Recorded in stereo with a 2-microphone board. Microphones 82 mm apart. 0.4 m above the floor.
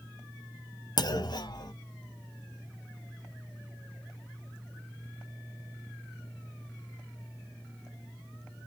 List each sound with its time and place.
1.0 s a clunk: 55° left (ahead or behind), 0.6 m